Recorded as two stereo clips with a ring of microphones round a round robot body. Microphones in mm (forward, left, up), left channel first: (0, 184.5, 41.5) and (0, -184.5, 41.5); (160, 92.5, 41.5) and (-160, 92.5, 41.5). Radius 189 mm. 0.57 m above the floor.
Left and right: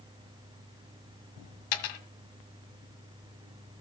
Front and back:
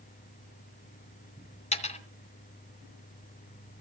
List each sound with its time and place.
1.7 s a dropped coin: 70° left, 2 m